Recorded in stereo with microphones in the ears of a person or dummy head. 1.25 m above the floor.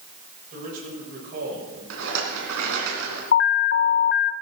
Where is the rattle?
70° right (ahead or behind), 3.5 m.